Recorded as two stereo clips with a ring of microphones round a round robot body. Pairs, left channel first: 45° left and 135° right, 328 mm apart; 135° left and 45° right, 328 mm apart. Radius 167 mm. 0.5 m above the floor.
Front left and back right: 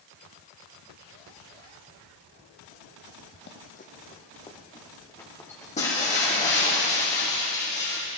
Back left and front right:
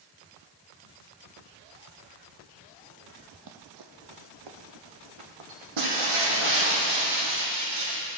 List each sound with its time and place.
3.3 s running footsteps: 5° right, 0.7 m; by 5.7 s 40° right, 2 m
5.8 s breaking glass: 25° right, 3.5 m